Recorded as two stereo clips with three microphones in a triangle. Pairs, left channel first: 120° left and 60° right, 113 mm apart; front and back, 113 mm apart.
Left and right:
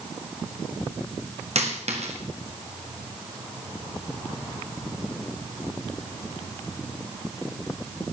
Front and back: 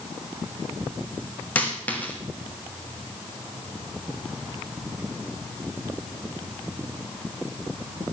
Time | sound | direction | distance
1.6 | a dropped coin | 75° right | 2 m